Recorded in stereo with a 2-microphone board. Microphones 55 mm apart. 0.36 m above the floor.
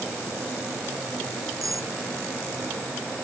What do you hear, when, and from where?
1.6 s cutlery clinking: 85° right